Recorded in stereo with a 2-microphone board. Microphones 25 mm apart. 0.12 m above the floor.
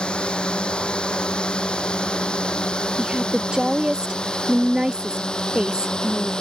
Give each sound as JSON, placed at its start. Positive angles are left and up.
{"t": 0.0, "sound": "a drone", "side_deg": 45}
{"t": 3.0, "sound": "a woman speaking", "side_deg": -30}